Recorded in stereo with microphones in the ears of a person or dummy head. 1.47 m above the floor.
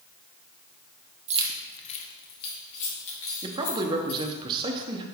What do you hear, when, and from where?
1.3 s keys jangling: 35° right (ahead or behind), 0.7 m; by 4.3 s 80° left, 4 m
3.4 s a man speaking: 25° right (ahead or behind), 1.0 m